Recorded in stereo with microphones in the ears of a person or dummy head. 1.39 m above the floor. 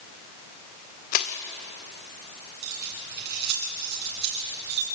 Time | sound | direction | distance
1.1 | crushing | 40° left (ahead or behind) | 1.5 m
2.6 | keys jangling | 55° right (ahead or behind) | 9 m